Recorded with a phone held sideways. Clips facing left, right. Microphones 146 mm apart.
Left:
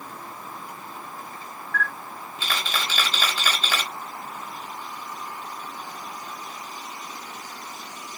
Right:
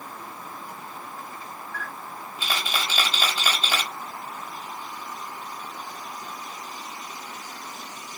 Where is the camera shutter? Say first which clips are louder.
Left 9 dB; 10° right (ahead or behind), 1.7 m.